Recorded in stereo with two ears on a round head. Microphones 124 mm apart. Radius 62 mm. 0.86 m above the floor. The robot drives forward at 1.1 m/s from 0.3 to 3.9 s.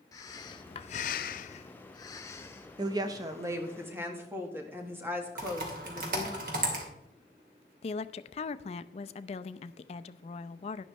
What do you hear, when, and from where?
0.1 s breathing: 25° left (ahead or behind), 1.2 m; by 2.7 s 15° left (ahead or behind), 1.7 m
2.8 s a woman speaking: 30° right (ahead or behind), 0.9 m; by 6.4 s 15° right (ahead or behind), 1.5 m
5.4 s typing on a keyboard: 65° right (ahead or behind), 2.5 m
7.8 s a woman speaking: 45° left (ahead or behind), 0.5 m